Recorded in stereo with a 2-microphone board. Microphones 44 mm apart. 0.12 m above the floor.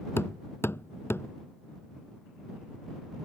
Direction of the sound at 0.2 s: 65° left (ahead or behind).